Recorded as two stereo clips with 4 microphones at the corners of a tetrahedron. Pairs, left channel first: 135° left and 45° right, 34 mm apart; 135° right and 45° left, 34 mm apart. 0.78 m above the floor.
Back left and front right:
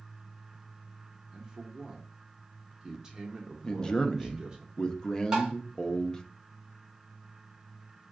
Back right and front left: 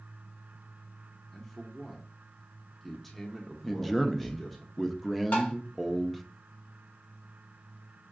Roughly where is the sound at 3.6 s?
Behind left.